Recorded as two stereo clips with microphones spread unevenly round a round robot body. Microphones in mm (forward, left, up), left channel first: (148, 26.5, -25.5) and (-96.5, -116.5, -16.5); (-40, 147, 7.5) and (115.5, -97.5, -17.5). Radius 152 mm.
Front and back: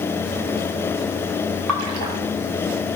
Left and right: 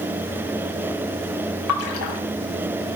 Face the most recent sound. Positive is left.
turn(degrees=170)